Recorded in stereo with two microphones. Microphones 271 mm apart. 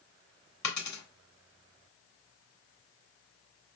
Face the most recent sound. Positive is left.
turn(degrees=85)